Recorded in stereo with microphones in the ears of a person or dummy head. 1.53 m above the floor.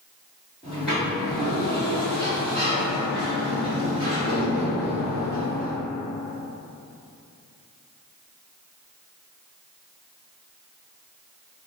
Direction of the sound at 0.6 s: Centre (ahead or behind).